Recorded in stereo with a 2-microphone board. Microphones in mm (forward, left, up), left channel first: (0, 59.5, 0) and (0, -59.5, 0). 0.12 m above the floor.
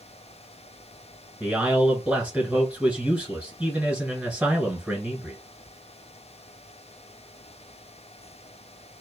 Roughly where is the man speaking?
Centre.